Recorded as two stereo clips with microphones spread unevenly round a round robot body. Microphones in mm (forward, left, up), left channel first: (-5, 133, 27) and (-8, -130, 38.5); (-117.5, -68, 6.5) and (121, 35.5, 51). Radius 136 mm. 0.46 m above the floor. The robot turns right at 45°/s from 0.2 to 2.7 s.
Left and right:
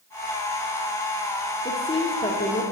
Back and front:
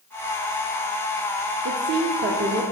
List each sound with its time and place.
1.6 s a woman speaking: 30° left, 0.7 m; by 2.6 s 75° left, 0.7 m